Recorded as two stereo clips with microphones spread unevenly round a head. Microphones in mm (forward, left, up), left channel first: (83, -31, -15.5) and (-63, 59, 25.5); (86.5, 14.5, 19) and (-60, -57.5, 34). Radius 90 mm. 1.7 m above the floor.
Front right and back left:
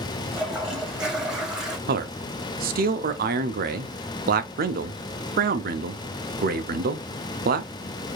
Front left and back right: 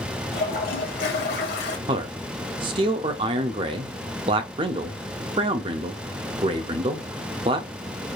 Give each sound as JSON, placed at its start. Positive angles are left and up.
{"t": 0.3, "sound": "a toilet flushing", "azimuth_deg": 65, "distance_m": 1.3}
{"t": 1.9, "sound": "a man speaking", "azimuth_deg": 150, "distance_m": 0.6}